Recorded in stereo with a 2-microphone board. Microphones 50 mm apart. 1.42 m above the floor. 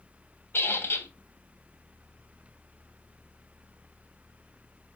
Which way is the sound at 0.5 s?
50° left (ahead or behind).